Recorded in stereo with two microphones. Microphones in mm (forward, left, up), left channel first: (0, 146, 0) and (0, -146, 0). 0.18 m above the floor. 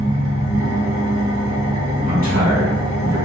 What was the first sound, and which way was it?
An engine running, 55° right (ahead or behind).